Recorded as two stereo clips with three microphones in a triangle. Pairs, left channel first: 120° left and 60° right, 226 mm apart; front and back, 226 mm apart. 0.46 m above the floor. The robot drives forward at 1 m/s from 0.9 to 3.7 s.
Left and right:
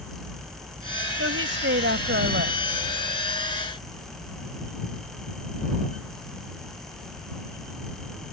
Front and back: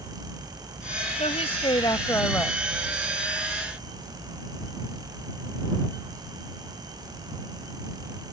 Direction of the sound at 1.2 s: 60° right.